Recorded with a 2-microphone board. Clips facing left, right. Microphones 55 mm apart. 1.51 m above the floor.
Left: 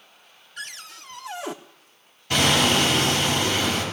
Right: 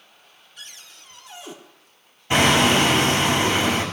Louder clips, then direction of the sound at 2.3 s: Right 3 dB; 20° right (ahead or behind).